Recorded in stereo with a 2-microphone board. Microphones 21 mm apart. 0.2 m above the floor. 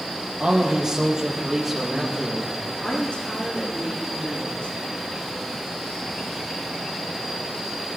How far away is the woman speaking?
About 8.5 m.